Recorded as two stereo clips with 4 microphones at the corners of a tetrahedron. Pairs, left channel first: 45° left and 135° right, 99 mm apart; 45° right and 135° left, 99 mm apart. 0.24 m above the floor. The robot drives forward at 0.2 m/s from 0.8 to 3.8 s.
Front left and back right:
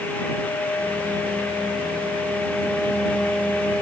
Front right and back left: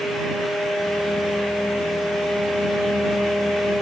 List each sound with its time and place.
Only background noise.